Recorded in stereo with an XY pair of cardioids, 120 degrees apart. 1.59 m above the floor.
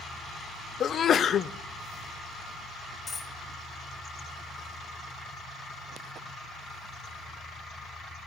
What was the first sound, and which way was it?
A sneeze, 45° left.